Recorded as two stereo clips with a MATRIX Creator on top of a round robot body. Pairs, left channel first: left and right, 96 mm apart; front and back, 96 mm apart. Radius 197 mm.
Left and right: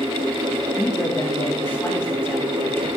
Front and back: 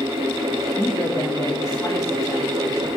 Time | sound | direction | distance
0.8 | a man speaking | 40° left | 1.7 m